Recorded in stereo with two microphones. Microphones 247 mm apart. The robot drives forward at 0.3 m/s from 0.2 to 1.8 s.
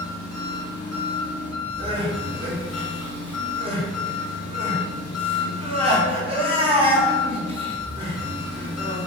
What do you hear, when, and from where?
0.0 s an engine running: 60° left (ahead or behind), 0.8 m; by 9.1 s 80° left, 0.7 m
1.8 s crying: 20° right (ahead or behind), 0.6 m